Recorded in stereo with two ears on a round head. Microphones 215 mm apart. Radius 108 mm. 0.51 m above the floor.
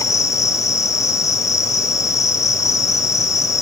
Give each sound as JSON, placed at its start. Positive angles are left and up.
{"t": 0.0, "sound": "an insect", "side_deg": 15, "distance_m": 1.9}